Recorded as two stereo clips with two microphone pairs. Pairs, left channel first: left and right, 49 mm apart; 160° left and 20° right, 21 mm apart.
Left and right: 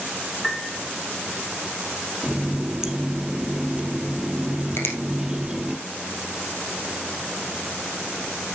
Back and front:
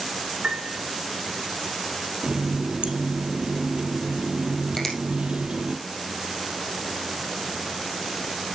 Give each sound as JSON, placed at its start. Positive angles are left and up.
{"t": 0.4, "sound": "a piano", "azimuth_deg": 5, "distance_m": 3.5}
{"t": 2.2, "sound": "a running tap", "azimuth_deg": -15, "distance_m": 1.8}
{"t": 4.8, "sound": "a finger snap", "azimuth_deg": 110, "distance_m": 2.5}